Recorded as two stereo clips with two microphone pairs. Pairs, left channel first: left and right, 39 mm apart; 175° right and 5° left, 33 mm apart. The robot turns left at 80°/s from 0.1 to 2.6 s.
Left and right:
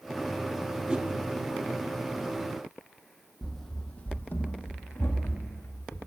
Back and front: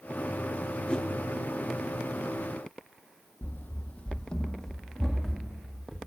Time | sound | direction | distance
0.9 | a whoosh | 135° right | 0.8 m
3.4 | running footsteps | 175° right | 0.9 m